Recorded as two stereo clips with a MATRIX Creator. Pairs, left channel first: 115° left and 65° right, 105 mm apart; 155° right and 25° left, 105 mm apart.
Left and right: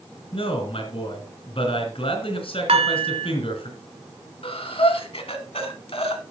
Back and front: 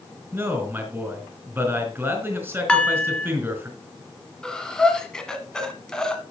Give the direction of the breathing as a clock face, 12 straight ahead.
8 o'clock.